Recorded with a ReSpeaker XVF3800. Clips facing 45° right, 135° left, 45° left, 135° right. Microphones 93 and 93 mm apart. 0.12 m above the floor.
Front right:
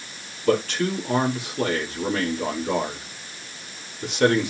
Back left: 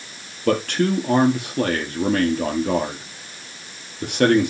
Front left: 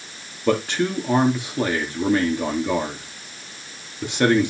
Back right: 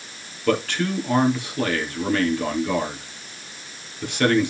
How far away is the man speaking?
About 3 m.